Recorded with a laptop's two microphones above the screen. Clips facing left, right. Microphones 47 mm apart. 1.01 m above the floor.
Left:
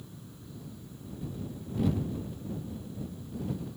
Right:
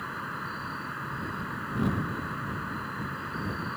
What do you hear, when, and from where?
0.0 s an insect: 85° right